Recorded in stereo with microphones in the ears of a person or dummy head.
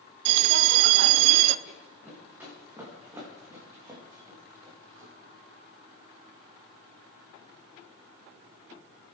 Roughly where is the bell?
Right.